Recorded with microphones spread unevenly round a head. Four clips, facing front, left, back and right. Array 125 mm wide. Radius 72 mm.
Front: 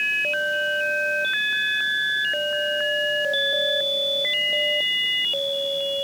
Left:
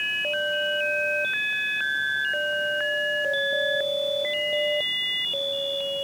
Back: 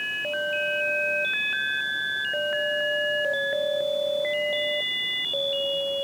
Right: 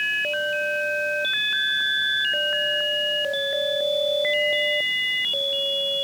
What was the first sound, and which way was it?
Only background noise.